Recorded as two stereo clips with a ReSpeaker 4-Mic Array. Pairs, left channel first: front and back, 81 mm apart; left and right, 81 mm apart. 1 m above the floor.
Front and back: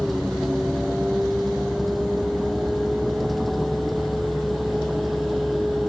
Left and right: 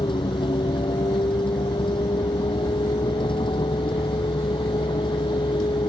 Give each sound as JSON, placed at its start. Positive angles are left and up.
{"t": 0.0, "sound": "a vehicle", "azimuth_deg": 90}